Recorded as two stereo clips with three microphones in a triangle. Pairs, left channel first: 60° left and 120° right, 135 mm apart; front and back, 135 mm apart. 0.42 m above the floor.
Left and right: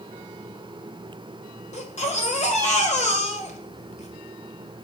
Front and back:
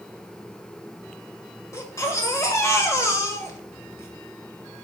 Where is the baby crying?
65° left, 1.5 m.